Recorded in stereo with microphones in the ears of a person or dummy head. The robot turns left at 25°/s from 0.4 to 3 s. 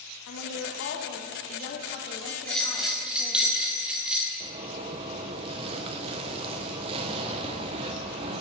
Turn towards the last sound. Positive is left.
turn(degrees=-30)  # may be behind; listen again after turning